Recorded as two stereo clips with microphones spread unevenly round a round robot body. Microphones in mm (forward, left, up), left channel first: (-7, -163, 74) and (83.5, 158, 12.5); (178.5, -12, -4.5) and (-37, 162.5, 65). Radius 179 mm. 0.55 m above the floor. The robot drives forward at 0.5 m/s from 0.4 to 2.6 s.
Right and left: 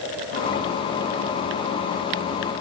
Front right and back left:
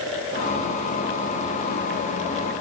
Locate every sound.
Only background noise.